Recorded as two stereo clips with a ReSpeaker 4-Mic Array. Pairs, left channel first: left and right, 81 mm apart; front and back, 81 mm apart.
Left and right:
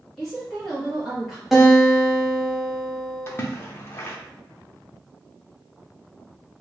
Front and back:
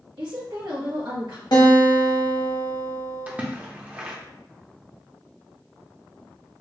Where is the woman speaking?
Straight behind, 1.0 m.